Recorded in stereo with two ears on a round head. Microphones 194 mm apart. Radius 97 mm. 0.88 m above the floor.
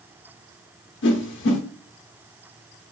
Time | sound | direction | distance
1.0 | a whoosh | 60° left (ahead or behind) | 0.8 m